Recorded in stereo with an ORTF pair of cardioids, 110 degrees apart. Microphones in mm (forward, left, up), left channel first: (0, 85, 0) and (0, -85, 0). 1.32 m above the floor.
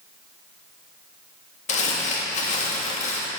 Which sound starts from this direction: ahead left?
Crumpling, at 1.7 s.